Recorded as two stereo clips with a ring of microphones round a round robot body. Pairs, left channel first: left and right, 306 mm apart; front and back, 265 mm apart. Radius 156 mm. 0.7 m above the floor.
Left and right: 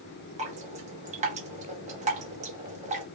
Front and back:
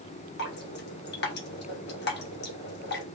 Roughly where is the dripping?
Ahead right.